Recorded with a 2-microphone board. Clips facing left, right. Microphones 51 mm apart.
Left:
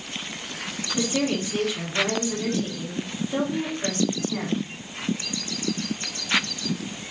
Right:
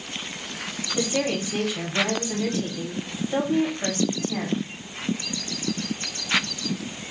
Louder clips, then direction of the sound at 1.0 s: Even; 30° right (ahead or behind).